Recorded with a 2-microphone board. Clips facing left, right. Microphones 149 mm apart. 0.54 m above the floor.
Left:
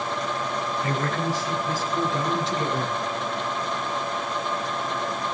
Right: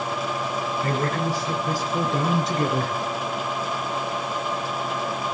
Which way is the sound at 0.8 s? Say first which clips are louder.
Right 2 dB; 35° right (ahead or behind).